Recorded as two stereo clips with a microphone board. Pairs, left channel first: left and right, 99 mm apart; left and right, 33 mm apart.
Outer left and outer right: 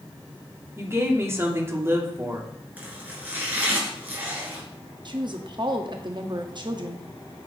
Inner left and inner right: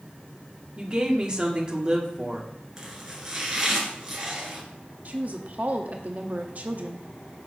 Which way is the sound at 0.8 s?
25° right (ahead or behind).